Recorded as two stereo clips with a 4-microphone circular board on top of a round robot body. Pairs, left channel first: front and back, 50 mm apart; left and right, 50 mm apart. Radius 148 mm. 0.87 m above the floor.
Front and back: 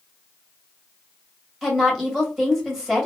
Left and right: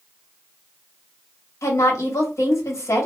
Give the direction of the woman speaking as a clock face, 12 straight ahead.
9 o'clock.